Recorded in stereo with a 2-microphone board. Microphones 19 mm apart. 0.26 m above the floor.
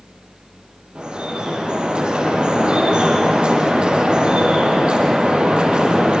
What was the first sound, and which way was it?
Dripping, 80° right.